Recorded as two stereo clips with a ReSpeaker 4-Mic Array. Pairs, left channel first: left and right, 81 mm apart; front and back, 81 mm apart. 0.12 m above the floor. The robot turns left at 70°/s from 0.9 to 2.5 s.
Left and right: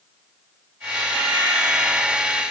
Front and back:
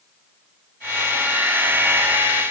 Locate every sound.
Only background noise.